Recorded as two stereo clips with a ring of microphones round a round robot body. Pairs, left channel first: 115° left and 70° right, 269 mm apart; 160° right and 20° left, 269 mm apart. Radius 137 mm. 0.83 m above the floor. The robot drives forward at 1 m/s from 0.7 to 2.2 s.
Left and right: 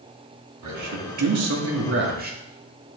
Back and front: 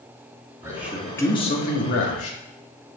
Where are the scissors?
No scissors in this recording.